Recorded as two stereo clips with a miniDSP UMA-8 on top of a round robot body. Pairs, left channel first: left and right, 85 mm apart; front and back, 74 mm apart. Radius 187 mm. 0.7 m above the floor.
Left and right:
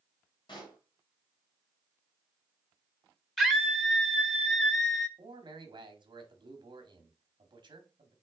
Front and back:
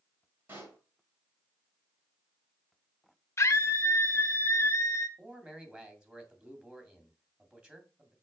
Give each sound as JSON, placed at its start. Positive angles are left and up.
{"t": 0.5, "sound": "a pop", "azimuth_deg": 120, "distance_m": 3.0}
{"t": 3.4, "sound": "a scream", "azimuth_deg": 5, "distance_m": 1.0}
{"t": 5.2, "sound": "a man speaking", "azimuth_deg": -110, "distance_m": 2.5}